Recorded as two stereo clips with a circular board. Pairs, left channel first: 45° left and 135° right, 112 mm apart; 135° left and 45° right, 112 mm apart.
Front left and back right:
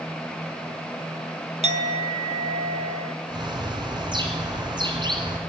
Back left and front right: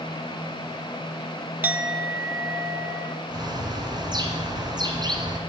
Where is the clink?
120° right, 0.7 m.